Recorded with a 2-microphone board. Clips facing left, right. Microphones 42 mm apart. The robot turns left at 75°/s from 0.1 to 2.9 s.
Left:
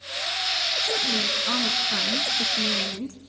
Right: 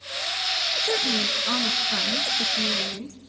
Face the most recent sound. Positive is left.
turn(degrees=100)